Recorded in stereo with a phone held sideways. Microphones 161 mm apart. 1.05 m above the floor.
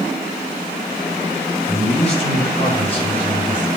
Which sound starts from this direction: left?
A man speaking, at 1.7 s.